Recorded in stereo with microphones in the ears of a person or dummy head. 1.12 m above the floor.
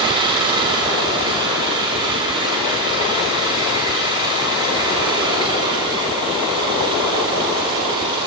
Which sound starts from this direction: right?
An engine running, at 0.0 s.